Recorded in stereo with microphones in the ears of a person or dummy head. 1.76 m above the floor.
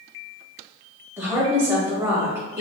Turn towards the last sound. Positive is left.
turn(degrees=-15)  # may be behind; listen again after turning